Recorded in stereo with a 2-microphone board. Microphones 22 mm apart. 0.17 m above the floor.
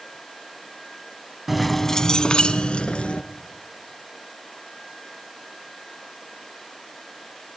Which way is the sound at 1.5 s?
10° right (ahead or behind).